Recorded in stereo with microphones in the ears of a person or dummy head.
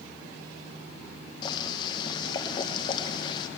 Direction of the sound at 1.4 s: 25° left (ahead or behind).